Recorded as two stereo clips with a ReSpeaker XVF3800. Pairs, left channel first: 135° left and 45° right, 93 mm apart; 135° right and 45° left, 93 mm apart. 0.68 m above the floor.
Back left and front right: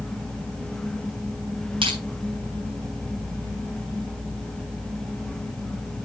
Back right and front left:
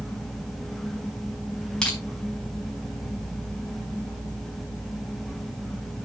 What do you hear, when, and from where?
1.8 s crushing: 50° right, 4.5 m